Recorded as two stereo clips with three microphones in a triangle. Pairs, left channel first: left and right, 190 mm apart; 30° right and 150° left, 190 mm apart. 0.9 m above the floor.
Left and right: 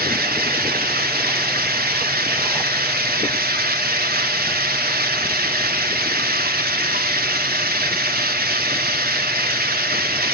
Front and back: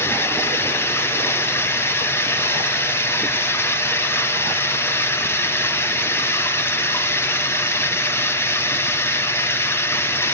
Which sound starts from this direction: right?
Running water, at 0.0 s.